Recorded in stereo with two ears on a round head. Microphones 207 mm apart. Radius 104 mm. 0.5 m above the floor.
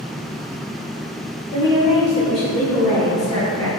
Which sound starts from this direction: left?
A woman speaking, at 1.5 s.